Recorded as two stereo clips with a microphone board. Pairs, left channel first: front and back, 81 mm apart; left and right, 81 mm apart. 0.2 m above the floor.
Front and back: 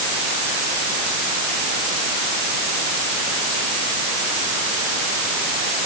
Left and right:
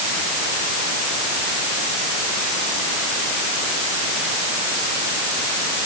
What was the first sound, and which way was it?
Only background noise.